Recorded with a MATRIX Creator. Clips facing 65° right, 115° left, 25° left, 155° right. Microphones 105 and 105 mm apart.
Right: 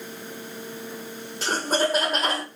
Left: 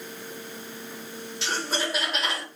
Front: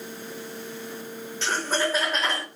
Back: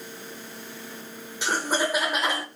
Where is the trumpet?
I don't hear a trumpet.